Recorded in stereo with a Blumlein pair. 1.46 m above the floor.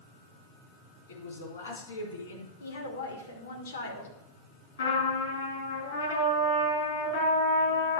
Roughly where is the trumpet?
Ahead left.